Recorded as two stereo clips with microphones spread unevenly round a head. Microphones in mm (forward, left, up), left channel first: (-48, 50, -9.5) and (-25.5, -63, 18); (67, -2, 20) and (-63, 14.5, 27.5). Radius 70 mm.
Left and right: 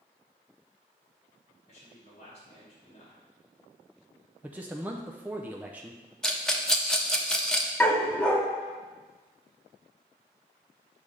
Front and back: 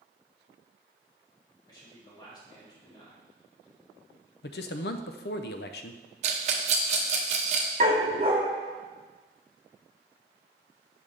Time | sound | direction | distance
1.7 | a man speaking | 55° left | 2.5 m
4.4 | a man speaking | straight ahead | 0.5 m
6.2 | a rattle | 165° right | 0.8 m
7.8 | a dog barking | 165° right | 0.9 m